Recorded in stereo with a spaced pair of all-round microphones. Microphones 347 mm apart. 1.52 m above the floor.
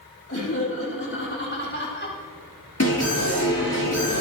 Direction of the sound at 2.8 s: 45° left (ahead or behind).